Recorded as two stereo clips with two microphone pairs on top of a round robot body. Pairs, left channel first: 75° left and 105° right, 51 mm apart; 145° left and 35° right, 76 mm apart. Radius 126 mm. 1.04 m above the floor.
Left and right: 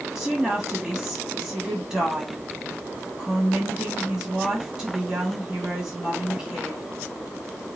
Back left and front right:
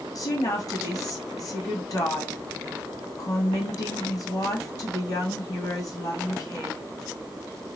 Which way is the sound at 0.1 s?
175° left.